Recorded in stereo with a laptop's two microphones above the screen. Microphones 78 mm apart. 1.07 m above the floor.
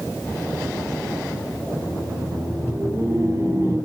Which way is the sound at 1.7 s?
50° right (ahead or behind).